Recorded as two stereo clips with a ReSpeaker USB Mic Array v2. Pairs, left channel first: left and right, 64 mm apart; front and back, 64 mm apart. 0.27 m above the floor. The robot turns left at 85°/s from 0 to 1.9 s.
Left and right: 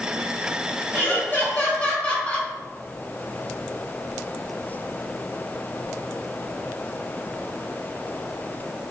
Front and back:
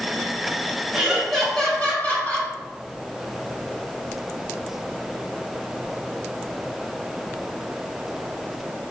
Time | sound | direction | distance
0.9 | laughter | 125° left | 1.0 m